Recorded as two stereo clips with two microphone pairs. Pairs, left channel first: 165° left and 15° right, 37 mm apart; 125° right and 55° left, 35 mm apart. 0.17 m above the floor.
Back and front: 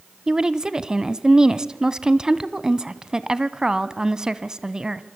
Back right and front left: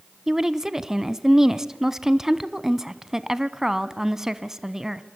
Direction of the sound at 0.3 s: 10° left.